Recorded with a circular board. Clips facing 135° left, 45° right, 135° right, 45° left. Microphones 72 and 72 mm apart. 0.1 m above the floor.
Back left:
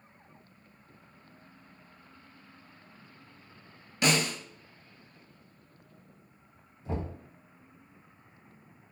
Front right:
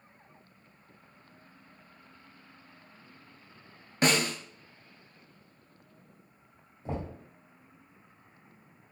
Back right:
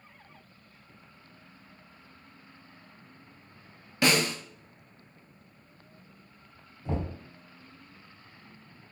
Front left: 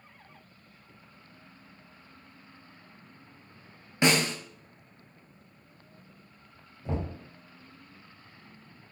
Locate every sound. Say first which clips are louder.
4.0 s a snare drum: front right 1 dB, front left 1 dB; 15° right, 0.9 m
6.8 s knocking: even, back right 1 dB; 30° right, 2 m